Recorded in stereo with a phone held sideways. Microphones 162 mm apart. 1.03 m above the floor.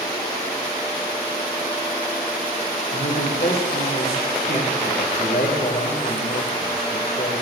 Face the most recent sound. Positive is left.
turn(degrees=70)  # may be behind; listen again after turning